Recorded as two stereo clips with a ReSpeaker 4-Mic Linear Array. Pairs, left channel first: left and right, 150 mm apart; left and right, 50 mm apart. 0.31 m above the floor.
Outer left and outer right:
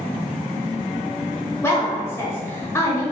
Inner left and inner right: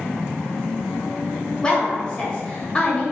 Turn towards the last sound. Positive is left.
turn(degrees=20)  # may be behind; listen again after turning